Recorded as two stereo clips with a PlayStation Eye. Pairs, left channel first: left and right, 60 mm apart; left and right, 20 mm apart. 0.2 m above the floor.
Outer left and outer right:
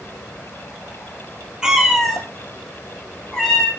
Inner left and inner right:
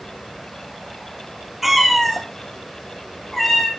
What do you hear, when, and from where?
1.6 s a cat meowing: 15° right (ahead or behind), 1.5 m; by 3.7 s 10° left (ahead or behind), 2.5 m